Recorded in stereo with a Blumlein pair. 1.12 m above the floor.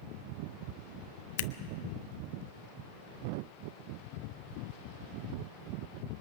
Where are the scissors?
50° left, 0.8 m.